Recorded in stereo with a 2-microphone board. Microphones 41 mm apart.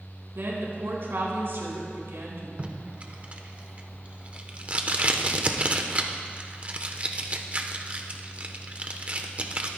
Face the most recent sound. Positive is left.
turn(degrees=-35)  # may be behind; listen again after turning